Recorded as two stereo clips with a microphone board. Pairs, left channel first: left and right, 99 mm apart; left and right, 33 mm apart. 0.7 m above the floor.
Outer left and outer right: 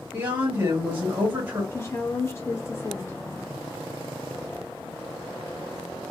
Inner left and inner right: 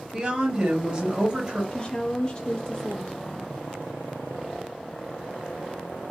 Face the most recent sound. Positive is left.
turn(degrees=25)  # may be behind; listen again after turning